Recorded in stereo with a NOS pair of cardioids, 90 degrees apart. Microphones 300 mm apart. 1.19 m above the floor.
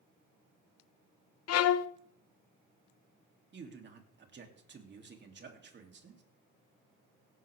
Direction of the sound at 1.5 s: 55° left.